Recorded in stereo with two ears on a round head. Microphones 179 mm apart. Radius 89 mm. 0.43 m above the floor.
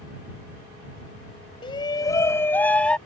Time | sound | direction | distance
1.6 | a shout | 25° left (ahead or behind) | ?